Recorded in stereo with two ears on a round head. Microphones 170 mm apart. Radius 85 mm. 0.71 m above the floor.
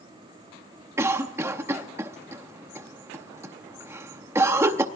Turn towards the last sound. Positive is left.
turn(degrees=-15)  # may be behind; listen again after turning